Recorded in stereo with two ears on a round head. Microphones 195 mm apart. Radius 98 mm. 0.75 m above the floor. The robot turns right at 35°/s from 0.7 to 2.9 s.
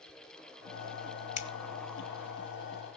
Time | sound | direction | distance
1.4 | scissors | 35° left (ahead or behind) | 1.3 m